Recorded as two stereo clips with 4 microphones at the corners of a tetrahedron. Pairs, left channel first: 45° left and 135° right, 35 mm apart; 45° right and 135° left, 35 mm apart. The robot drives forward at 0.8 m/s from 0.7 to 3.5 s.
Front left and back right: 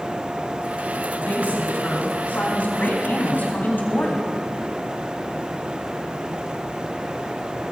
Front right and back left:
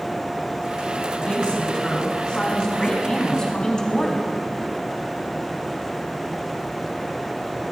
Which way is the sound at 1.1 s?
15° left.